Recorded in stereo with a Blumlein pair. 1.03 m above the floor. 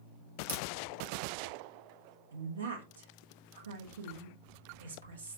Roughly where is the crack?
Ahead right.